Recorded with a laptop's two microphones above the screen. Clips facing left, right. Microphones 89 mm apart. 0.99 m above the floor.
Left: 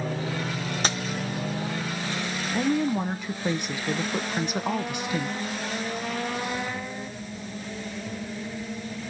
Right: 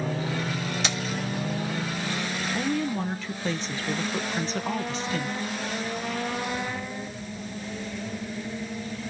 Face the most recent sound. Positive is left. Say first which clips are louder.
# left 4 dB
turn(degrees=15)  # may be behind; listen again after turning